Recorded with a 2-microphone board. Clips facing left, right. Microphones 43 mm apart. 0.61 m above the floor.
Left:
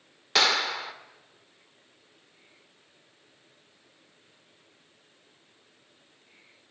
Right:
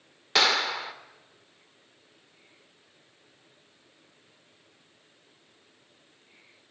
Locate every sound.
0.3 s a clap: 5° right (ahead or behind), 1.3 m